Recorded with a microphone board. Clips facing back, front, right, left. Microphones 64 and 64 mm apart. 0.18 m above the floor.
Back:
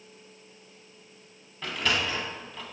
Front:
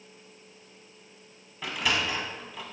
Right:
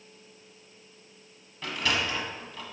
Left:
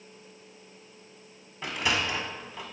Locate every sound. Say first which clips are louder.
1.6 s a sliding door: even, even; 65° left, 0.7 m